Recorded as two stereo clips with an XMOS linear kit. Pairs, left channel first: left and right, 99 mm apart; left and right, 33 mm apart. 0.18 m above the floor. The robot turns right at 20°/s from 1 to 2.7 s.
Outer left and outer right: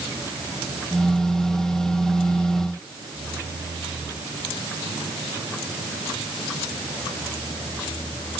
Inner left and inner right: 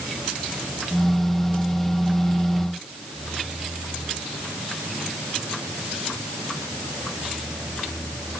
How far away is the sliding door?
No sliding door in this recording.